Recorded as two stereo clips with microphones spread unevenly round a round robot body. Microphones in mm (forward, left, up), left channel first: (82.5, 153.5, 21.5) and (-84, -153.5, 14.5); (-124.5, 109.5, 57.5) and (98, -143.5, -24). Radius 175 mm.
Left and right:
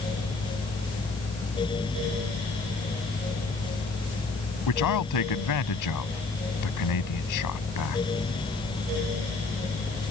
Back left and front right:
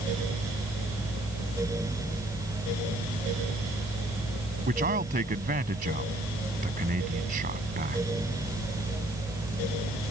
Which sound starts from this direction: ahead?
A man speaking, at 4.7 s.